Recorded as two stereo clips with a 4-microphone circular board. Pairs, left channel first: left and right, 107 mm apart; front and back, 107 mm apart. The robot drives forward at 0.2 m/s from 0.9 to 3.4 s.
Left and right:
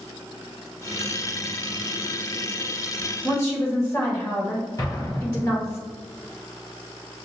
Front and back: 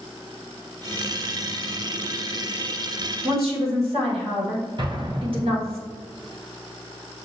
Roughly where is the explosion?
Behind left.